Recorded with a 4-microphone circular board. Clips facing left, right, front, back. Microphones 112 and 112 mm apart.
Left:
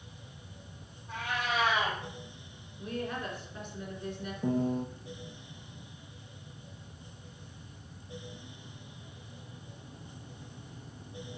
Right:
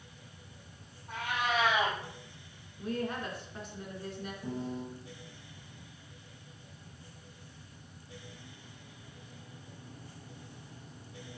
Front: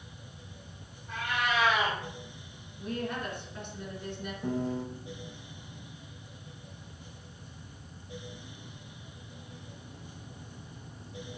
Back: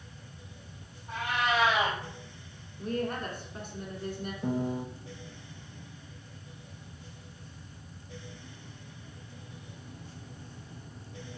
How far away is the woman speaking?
About 2.5 m.